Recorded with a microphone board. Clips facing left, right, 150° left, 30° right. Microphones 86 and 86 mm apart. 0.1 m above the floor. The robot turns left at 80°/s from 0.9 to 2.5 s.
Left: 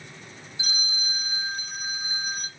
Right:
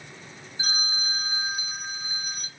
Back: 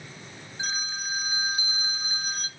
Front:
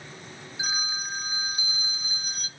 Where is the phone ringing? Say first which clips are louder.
Right 3 dB, even; 110° right, 1.0 m; by 2.5 s 125° left, 1.0 m.